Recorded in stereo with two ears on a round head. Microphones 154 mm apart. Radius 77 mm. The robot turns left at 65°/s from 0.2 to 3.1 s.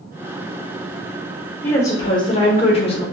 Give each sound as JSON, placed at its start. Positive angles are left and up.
{"t": 1.6, "sound": "a woman speaking", "azimuth_deg": 160, "distance_m": 0.8}